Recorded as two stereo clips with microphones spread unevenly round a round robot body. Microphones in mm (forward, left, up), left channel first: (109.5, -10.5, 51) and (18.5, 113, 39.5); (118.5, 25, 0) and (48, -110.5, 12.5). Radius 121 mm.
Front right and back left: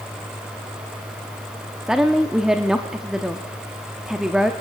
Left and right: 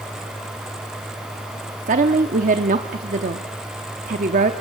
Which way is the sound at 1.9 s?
150° right.